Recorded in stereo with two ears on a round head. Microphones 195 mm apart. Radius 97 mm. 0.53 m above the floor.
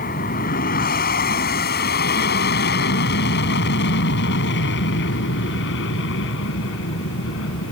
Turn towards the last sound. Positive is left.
turn(degrees=65)  # may be behind; listen again after turning